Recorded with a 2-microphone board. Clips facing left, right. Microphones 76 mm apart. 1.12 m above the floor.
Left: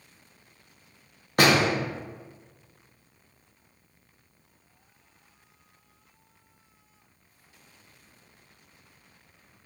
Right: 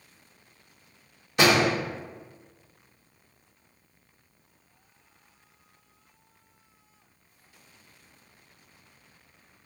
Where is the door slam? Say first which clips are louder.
Even; 50° left (ahead or behind), 1.2 m.